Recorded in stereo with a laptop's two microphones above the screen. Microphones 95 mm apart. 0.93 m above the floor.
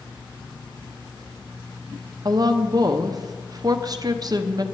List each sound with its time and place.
2.2 s a woman speaking: 45° right (ahead or behind), 0.6 m